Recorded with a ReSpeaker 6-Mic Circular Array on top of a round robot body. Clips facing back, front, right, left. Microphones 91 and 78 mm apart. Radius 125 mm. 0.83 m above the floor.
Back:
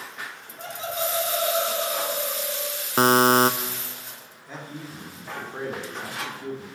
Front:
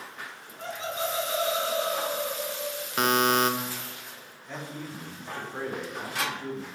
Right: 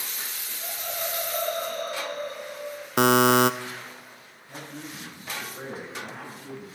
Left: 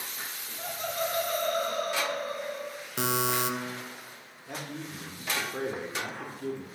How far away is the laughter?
About 6.5 m.